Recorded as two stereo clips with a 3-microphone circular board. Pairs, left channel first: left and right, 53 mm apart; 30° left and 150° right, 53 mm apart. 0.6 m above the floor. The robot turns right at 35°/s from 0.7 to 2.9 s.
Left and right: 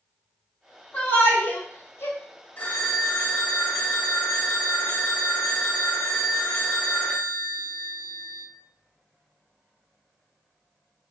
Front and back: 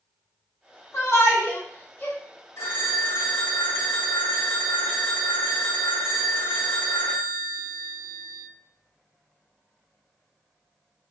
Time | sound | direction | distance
0.9 | a shout | 35° left | 1.1 m
2.6 | a phone ringing | 40° left | 1.3 m